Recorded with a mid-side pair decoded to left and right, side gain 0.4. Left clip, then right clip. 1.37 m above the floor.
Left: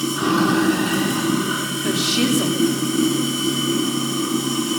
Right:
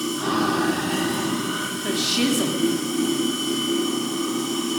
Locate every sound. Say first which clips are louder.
0.0 s running water: left 4 dB; 65° left, 7.5 m
1.8 s a woman speaking: left 2 dB; 15° left, 3.5 m